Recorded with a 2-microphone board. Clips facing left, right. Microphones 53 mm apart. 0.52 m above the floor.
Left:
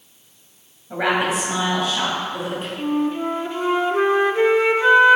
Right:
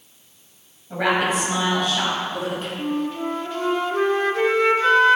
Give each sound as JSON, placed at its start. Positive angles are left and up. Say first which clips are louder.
{"t": 0.9, "sound": "a woman speaking", "louder": "even", "side_deg": 10, "distance_m": 3.0}
{"t": 2.8, "sound": "a flute", "louder": "left 5 dB", "side_deg": 15, "distance_m": 0.6}